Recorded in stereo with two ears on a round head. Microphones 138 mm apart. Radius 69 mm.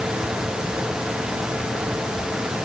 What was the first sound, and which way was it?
Only background noise.